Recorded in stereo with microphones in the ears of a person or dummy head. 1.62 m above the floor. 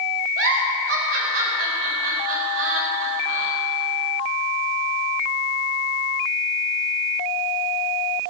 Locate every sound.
0.4 s a giggle: 80° right, 4 m